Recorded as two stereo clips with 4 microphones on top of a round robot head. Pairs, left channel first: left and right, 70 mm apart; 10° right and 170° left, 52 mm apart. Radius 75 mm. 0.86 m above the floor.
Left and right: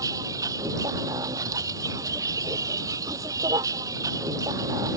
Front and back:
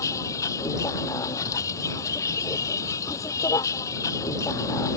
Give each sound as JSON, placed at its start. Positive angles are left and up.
{"t": 0.0, "sound": "a vehicle", "azimuth_deg": -40}